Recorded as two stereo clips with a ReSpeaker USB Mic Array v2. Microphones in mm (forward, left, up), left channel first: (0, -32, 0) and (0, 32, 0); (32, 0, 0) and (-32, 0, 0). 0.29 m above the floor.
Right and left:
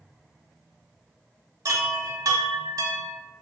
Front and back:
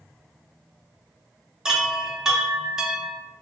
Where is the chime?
100° left, 0.6 m.